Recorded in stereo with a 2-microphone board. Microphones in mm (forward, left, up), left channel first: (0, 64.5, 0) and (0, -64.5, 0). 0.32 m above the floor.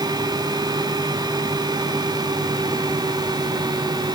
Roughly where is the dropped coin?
No dropped coin in this recording.